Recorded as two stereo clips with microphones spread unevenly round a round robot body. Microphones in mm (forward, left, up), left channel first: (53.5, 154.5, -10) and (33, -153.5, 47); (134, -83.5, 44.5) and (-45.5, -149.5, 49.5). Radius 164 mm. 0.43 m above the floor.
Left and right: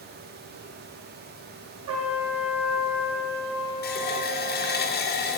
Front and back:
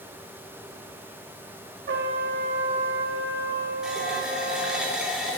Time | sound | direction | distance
1.9 | a trumpet | 145° right | 1.4 m
3.8 | a running tap | 115° left | 0.8 m